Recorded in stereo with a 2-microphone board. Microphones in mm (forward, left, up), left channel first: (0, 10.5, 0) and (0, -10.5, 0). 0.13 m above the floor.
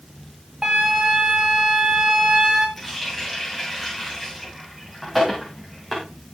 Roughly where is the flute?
Right.